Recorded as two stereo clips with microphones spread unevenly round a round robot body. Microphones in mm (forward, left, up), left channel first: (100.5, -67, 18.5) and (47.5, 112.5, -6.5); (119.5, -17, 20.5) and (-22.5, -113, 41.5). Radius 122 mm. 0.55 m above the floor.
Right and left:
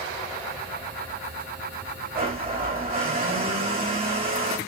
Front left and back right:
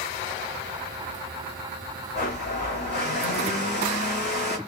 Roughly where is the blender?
Left.